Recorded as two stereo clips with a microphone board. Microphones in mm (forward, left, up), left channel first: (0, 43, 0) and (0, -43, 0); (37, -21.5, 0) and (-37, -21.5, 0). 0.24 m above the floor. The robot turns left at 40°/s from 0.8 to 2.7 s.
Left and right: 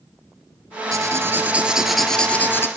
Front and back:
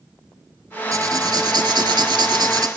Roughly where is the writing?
Behind right.